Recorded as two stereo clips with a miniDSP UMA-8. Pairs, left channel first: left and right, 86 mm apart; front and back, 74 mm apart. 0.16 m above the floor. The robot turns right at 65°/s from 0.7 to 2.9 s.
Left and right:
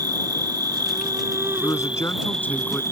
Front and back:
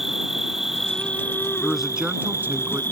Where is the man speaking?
85° left; by 2.8 s 165° left.